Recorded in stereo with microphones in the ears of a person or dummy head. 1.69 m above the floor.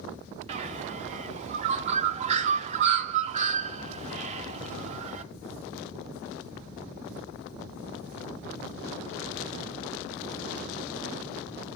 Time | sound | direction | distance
0.5 | a bird | 35° right (ahead or behind) | 0.6 m